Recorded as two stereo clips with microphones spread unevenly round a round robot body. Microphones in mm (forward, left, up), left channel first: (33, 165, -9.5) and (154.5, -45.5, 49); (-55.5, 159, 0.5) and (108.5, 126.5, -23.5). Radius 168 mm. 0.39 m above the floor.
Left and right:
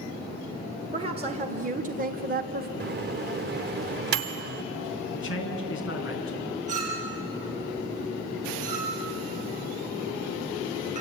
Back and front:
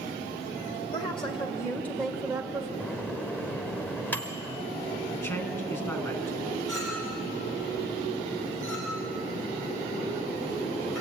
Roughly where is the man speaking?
Left.